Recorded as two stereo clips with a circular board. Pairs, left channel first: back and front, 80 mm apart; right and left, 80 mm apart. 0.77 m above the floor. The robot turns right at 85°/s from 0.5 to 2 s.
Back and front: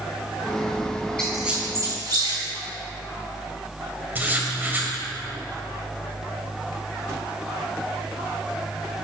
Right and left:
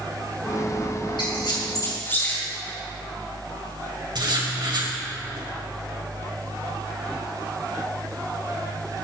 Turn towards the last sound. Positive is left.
turn(degrees=65)